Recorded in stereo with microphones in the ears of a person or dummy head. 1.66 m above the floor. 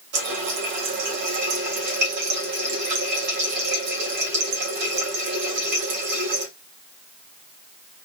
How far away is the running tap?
About 2 m.